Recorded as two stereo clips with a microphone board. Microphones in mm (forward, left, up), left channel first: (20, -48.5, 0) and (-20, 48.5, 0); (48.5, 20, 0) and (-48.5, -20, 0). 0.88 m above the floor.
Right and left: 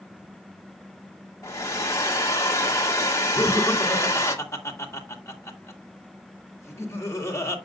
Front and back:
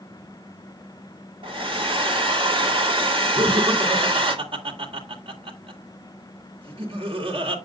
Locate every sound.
1.4 s a hair dryer: 130° right, 2.0 m
3.4 s laughter: 130° right, 2.5 m